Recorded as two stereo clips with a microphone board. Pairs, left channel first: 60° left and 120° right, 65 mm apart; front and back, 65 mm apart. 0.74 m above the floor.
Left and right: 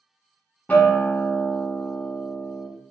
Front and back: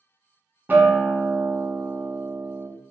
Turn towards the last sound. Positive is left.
turn(degrees=125)